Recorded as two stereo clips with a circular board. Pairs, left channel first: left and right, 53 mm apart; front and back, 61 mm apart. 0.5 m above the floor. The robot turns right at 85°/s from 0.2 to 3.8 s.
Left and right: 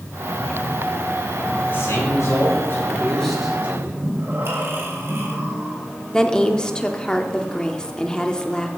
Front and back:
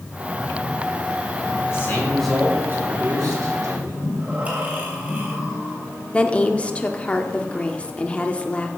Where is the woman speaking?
35° left, 0.8 m.